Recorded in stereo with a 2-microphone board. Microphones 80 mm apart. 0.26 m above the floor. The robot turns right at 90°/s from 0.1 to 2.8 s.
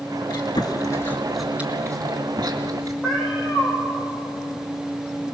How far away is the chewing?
About 2.5 m.